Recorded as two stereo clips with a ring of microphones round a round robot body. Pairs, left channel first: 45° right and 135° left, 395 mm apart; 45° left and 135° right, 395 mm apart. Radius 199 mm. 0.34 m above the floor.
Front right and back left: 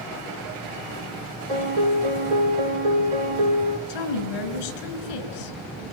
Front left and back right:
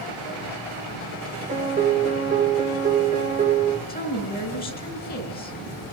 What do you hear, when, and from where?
1.5 s a piano: 150° left, 6 m
3.9 s a woman speaking: 25° right, 5 m